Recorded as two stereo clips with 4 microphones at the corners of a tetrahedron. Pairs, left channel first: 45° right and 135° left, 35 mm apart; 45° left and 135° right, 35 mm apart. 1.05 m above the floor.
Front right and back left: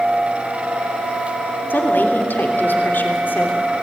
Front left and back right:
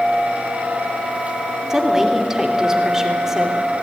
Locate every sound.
1.7 s a woman speaking: 60° right, 3 m